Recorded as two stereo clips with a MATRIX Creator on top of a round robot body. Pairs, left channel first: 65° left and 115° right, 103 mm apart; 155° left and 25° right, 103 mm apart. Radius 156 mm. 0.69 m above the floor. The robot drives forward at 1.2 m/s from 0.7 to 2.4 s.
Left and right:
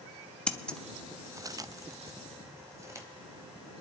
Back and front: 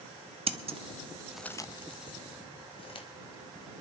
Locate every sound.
0.5 s scissors: 10° right, 0.9 m; by 3.1 s 175° right, 1.4 m